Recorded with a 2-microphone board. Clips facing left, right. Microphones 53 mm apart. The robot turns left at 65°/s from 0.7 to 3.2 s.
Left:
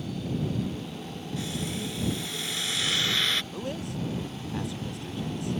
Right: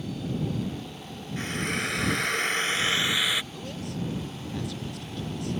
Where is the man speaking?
20° left (ahead or behind).